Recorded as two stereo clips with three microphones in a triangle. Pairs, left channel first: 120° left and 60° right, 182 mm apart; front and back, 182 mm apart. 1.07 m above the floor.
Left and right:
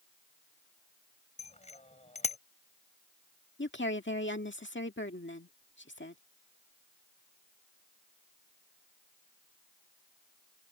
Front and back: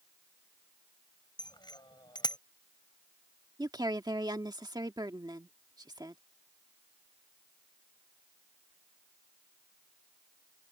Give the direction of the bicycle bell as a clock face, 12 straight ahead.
10 o'clock.